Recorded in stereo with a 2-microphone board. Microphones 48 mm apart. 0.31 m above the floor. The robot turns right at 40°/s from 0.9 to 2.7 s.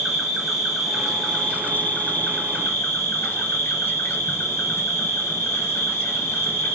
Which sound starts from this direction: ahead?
An insect, at 0.0 s.